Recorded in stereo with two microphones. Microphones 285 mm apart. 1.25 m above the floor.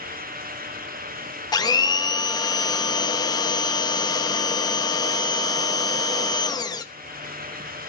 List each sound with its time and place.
1.5 s a blender: 15° left (ahead or behind), 0.8 m